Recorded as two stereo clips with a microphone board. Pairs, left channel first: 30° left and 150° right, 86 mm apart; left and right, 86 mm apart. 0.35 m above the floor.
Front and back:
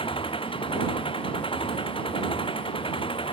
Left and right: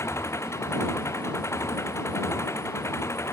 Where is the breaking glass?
I don't hear breaking glass.